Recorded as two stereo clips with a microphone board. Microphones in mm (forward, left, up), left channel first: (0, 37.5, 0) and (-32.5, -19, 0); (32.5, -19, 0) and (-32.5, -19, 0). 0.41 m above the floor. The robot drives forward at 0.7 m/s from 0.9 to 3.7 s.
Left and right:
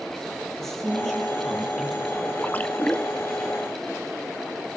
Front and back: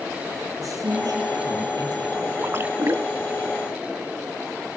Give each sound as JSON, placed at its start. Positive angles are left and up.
{"t": 0.6, "sound": "a man speaking", "azimuth_deg": 145, "distance_m": 9.0}
{"t": 2.4, "sound": "a splash", "azimuth_deg": 125, "distance_m": 1.6}